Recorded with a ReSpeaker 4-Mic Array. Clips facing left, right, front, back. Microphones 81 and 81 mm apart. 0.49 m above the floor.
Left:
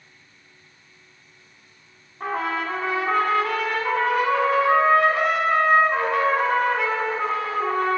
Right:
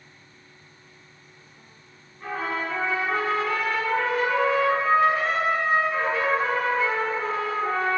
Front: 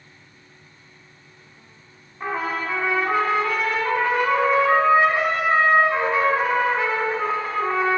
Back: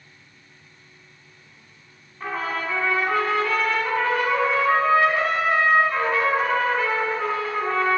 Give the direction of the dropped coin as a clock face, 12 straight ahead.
I don't hear a dropped coin.